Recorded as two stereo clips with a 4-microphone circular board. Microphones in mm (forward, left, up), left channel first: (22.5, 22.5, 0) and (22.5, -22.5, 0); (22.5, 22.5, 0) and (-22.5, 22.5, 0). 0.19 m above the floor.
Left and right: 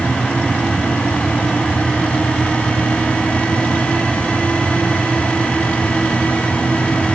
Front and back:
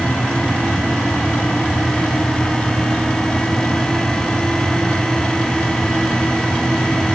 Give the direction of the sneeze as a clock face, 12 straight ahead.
No sneeze in this recording.